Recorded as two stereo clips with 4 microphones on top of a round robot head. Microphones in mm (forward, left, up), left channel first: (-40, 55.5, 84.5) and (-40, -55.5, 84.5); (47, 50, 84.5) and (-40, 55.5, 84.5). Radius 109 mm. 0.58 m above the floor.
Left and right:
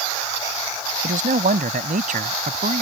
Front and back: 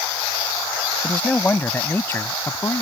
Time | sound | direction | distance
1.0 | a man speaking | 85° right | ?